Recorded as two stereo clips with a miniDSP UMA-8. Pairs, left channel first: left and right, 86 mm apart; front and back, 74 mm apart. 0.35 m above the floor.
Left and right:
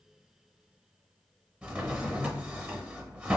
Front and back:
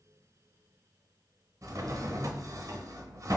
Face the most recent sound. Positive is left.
turn(degrees=-160)